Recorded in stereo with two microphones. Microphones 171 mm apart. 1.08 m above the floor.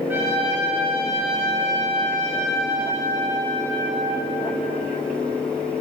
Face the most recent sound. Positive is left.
turn(degrees=-10)  # may be behind; listen again after turning